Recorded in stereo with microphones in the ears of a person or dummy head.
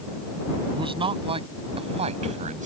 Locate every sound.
0.7 s a man speaking: 25° right (ahead or behind); by 2.7 s 40° right (ahead or behind)